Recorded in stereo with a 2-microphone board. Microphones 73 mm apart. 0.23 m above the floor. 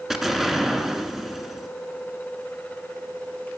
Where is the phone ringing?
I don't hear a phone ringing.